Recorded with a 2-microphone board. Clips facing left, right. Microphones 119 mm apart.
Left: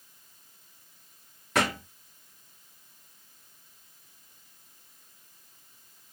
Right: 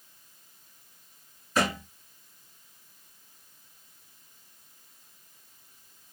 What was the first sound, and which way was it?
A thud, 80° left.